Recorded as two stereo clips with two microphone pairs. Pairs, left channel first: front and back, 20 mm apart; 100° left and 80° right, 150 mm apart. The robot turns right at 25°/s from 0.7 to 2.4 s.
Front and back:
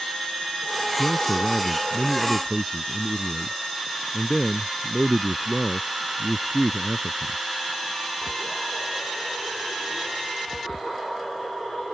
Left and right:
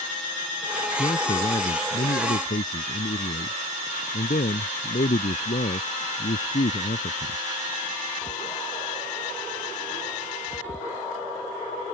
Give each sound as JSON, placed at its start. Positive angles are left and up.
{"t": 1.0, "sound": "a man speaking", "azimuth_deg": 50}